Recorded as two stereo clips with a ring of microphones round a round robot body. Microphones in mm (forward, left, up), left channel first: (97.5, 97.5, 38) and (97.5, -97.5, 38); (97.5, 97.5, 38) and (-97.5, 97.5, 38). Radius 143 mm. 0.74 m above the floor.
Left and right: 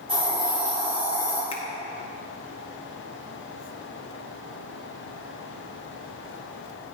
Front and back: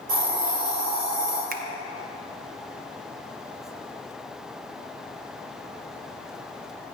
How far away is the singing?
No singing in this recording.